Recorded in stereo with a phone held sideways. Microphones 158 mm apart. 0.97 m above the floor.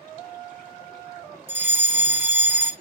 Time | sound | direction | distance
1.5 | a fire alarm | 15° right (ahead or behind) | 2.5 m